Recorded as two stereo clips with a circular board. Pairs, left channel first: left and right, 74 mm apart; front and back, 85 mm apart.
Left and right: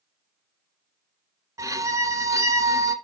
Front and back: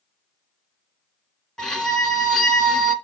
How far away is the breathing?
No breathing in this recording.